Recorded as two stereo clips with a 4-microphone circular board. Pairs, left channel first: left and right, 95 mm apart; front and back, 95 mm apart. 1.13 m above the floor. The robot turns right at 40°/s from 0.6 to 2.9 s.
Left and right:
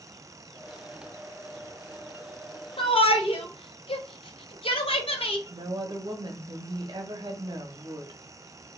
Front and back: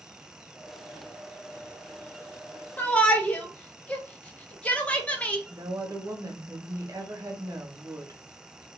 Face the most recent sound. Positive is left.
turn(degrees=-130)